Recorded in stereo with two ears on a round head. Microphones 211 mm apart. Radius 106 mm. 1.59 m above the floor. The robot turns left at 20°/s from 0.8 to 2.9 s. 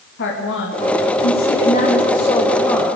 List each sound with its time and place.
0.2 s a woman speaking: 50° left, 3 m; by 3.0 s 5° left, 3 m